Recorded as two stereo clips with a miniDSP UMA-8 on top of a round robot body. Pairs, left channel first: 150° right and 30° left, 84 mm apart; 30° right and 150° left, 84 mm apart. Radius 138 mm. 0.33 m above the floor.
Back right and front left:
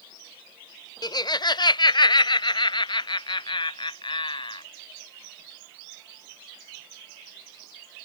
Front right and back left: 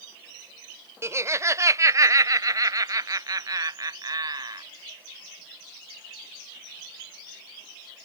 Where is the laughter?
160° right; by 4.6 s 170° right.